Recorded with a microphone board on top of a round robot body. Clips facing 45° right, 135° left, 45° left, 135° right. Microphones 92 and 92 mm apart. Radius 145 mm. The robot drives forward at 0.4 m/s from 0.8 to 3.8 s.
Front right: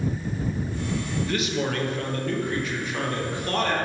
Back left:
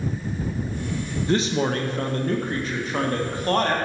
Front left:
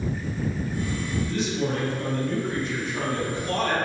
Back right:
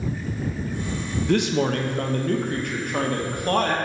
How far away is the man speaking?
About 0.8 m.